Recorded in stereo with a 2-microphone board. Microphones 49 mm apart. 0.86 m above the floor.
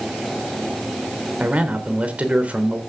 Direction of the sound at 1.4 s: 25° right (ahead or behind).